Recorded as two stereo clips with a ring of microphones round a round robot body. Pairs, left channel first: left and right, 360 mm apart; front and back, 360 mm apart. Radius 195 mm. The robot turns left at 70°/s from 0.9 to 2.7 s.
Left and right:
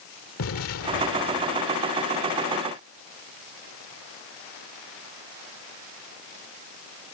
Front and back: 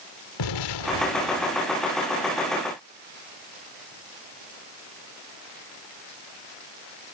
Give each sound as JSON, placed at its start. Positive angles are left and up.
{"t": 0.4, "sound": "an explosion", "azimuth_deg": 35}